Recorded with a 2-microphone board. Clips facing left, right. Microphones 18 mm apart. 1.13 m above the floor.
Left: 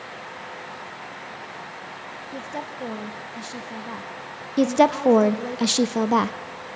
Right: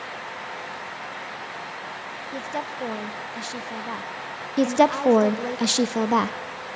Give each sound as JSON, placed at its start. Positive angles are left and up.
{"t": 2.3, "sound": "a woman speaking", "side_deg": -20, "distance_m": 1.0}
{"t": 4.6, "sound": "a woman speaking", "side_deg": 0, "distance_m": 0.6}